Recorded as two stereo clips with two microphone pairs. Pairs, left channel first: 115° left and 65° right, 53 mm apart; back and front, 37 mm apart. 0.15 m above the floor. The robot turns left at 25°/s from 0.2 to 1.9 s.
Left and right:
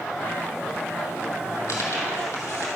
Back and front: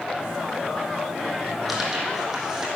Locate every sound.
1.7 s tearing paper: 85° left, 2.5 m; by 2.7 s 80° left, 2.5 m